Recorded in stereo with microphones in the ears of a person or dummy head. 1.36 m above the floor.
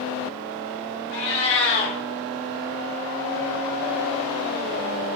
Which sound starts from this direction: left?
A cat meowing, at 1.1 s.